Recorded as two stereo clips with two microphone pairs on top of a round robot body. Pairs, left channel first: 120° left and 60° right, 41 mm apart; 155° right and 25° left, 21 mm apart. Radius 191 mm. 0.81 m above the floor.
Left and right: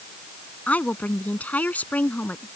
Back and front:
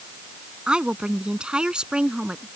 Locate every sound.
0.7 s a woman speaking: 70° left; by 2.5 s 75° left